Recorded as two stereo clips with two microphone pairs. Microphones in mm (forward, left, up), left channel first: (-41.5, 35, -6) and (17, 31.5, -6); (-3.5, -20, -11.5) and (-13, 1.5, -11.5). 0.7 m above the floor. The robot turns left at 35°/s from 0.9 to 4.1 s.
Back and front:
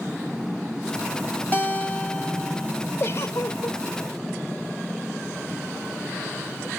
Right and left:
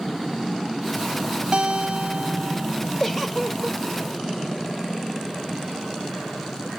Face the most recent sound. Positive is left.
turn(degrees=-175)